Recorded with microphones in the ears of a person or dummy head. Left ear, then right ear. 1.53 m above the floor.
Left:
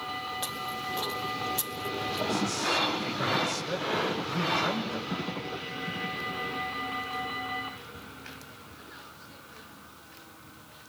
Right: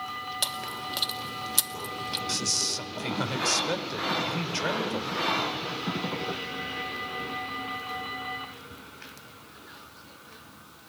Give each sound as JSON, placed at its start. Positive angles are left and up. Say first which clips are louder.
{"t": 0.4, "sound": "chewing", "louder": "right 2 dB", "side_deg": -40, "distance_m": 2.5}
{"t": 2.3, "sound": "a man speaking", "louder": "right 1 dB", "side_deg": -80, "distance_m": 6.0}